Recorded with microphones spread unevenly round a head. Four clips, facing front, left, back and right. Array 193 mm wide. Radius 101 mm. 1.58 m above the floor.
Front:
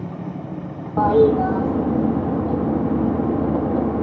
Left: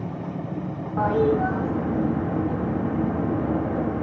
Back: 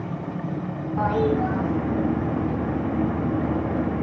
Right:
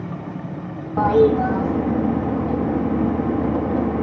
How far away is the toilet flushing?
About 3.5 m.